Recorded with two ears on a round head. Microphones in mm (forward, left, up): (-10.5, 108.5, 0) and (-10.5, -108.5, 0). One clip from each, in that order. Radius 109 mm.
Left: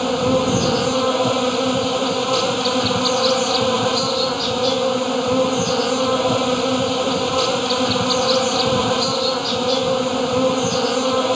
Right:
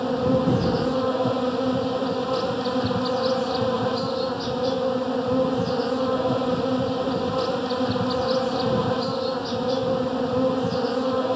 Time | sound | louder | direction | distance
0.0 | an insect | left 4 dB | 50° left (ahead or behind) | ?